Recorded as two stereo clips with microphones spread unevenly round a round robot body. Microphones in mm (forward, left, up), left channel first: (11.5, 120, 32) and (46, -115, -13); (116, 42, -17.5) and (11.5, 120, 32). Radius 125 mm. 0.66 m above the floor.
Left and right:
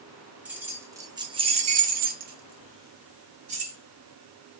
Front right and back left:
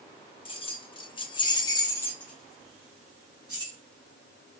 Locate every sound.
0.5 s keys jangling: 5° right, 1.0 m; by 3.8 s 140° right, 1.1 m